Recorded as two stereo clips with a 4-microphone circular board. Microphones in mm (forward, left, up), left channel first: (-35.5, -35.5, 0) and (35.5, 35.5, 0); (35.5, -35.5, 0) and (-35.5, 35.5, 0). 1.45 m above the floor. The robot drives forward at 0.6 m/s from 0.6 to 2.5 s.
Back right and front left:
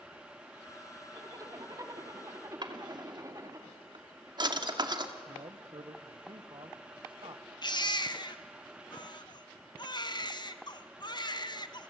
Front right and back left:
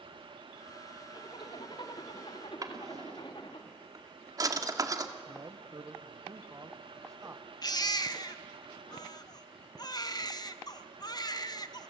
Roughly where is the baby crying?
Right.